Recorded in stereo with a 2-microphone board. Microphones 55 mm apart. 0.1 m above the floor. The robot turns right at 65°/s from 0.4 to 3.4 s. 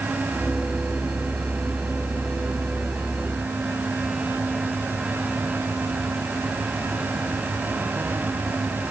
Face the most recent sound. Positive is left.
No sound to turn to.